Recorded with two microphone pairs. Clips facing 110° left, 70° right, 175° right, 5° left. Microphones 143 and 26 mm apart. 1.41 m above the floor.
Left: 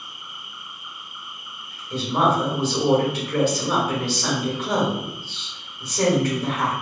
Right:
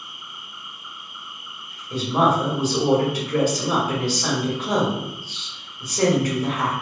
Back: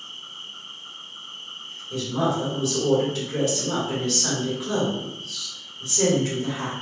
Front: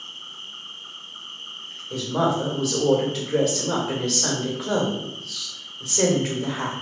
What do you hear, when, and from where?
0.0 s an insect: 25° left, 0.8 m
1.9 s a woman speaking: 10° left, 1.2 m